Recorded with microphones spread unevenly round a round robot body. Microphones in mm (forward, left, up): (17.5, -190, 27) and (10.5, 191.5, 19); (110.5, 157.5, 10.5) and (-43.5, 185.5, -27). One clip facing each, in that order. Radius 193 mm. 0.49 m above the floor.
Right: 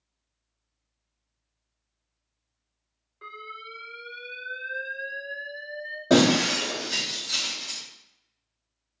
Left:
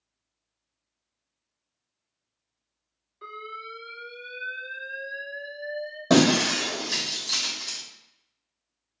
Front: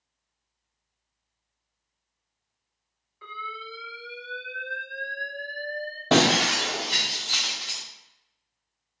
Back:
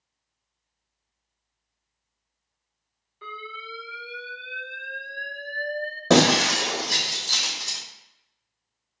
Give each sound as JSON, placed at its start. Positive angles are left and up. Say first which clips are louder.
{"t": 3.2, "sound": "an alarm", "louder": "left 4 dB, even", "azimuth_deg": 180, "distance_m": 1.9}
{"t": 6.1, "sound": "breaking glass", "louder": "even, back 3 dB", "azimuth_deg": 160, "distance_m": 1.6}